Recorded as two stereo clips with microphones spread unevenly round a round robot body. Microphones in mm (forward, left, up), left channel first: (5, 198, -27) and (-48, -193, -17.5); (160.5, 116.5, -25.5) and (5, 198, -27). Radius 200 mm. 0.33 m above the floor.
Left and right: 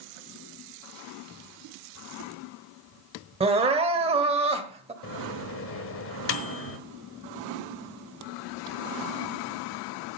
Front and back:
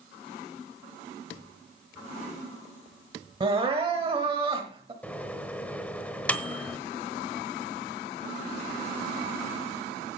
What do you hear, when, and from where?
3.4 s crying: 165° right, 1.2 m
5.0 s a microwave: 50° left, 1.2 m